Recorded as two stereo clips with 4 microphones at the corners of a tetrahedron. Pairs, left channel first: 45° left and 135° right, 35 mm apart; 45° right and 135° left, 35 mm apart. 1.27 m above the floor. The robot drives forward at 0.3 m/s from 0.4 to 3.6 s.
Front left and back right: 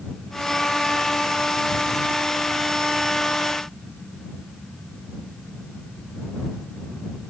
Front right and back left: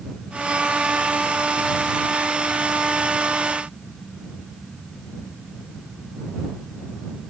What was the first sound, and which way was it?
Only background noise.